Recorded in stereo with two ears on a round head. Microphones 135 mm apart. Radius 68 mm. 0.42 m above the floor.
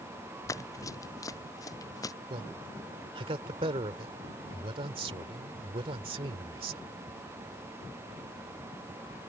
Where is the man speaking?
35° right (ahead or behind).